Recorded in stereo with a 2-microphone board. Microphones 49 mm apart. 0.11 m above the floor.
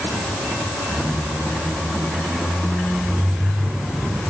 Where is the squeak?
10° right (ahead or behind), 6 m.